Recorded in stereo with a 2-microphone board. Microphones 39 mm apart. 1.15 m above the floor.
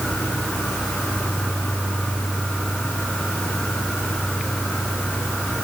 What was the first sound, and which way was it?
Only background noise.